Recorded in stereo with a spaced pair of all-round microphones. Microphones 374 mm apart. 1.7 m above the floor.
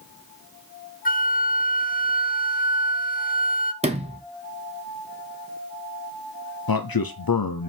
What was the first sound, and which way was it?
A flute, 20° left (ahead or behind).